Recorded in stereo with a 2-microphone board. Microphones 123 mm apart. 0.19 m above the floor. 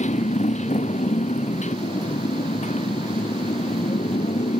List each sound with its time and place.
0.0 s a motorcycle: 75° left (ahead or behind)